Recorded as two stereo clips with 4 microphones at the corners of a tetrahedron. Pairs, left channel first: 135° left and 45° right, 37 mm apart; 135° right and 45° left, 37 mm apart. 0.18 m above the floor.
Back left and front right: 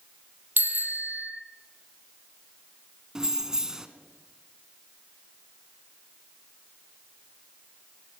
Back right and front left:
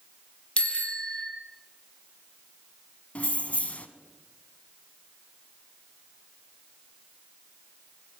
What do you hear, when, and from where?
0.6 s a bicycle bell: 75° right, 3.5 m
3.1 s keys jangling: 110° right, 0.9 m